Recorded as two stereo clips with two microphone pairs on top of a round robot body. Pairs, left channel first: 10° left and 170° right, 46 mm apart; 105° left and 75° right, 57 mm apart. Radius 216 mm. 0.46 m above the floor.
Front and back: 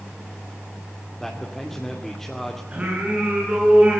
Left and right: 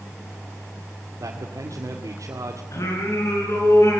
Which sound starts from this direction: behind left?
Singing, at 2.7 s.